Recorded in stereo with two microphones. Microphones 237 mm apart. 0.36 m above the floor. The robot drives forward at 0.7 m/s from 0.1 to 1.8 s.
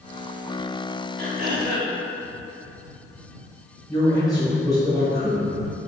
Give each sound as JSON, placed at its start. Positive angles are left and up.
{"t": 1.2, "sound": "throat clearing", "side_deg": -40, "distance_m": 1.1}
{"t": 3.9, "sound": "a man speaking", "side_deg": 15, "distance_m": 1.4}